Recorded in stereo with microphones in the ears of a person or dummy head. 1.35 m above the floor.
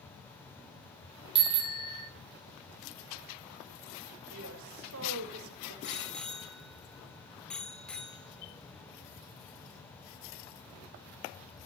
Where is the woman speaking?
75° right (ahead or behind), 3.5 m.